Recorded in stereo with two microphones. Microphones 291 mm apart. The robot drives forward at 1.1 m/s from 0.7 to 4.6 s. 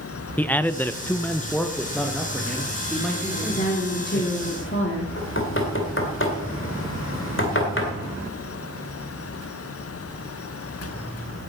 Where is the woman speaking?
30° left (ahead or behind), 3.5 m; by 5.1 s 45° left (ahead or behind), 2.5 m.